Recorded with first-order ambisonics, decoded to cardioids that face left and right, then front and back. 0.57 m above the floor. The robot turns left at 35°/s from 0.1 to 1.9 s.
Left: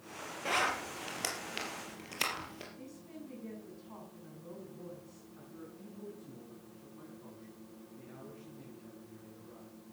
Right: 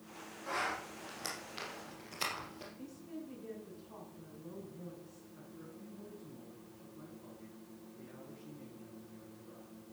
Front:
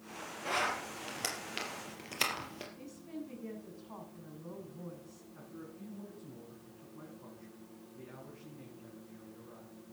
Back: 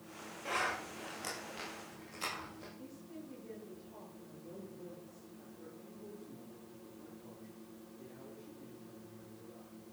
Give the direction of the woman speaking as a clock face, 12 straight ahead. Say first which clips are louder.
Right 1 dB, front 4 dB; 11 o'clock.